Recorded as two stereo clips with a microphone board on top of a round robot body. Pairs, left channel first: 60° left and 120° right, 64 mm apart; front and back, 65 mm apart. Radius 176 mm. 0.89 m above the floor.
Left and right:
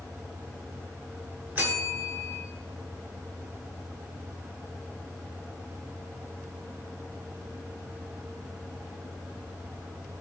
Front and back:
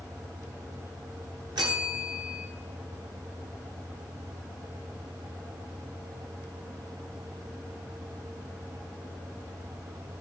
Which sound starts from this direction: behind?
A bell, at 1.6 s.